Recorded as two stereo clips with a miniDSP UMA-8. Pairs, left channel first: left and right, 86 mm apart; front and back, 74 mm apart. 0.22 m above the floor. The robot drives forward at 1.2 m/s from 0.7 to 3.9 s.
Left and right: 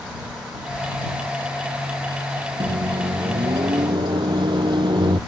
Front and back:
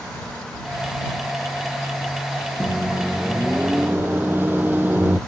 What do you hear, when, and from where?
2.6 s a microwave: 100° right; by 5.2 s 115° right